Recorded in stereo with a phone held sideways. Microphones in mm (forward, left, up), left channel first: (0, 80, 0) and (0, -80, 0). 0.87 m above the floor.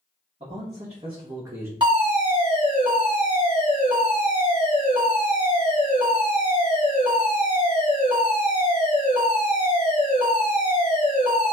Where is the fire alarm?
35° right (ahead or behind), 1.6 m.